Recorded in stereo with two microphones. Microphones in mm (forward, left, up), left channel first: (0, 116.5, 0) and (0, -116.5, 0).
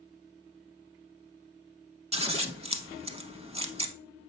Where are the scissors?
25° right (ahead or behind), 0.6 m.